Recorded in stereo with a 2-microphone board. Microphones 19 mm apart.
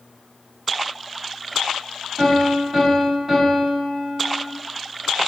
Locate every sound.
2.2 s a piano: 20° right (ahead or behind), 1.4 m